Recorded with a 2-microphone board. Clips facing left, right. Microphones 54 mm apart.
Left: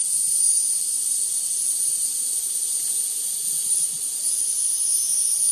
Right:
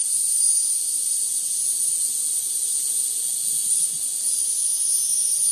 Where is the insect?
35° left (ahead or behind), 1.0 m.